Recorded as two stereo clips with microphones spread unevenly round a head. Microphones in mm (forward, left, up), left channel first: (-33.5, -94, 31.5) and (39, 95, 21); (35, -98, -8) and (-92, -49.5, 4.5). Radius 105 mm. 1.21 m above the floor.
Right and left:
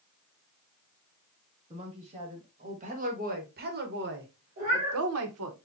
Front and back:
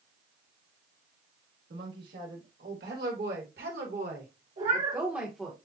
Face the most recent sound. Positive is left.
turn(degrees=120)